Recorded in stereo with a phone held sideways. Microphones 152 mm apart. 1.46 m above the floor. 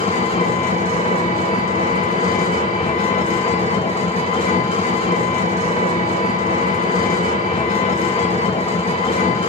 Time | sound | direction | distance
0.0 | an engine running | 40° left (ahead or behind) | 1.4 m